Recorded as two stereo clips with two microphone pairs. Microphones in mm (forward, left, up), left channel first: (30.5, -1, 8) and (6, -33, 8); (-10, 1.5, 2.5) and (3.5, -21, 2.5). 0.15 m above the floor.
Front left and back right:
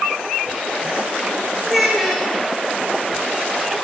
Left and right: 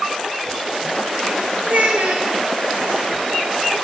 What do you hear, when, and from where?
1.6 s a child speaking: 40° right, 2 m